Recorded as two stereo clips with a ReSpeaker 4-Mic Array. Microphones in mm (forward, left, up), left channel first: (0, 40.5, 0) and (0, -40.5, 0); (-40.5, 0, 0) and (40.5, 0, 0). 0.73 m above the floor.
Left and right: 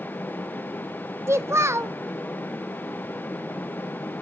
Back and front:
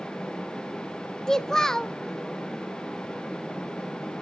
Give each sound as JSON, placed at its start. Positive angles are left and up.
{"t": 1.3, "sound": "a child speaking", "azimuth_deg": -100, "distance_m": 0.6}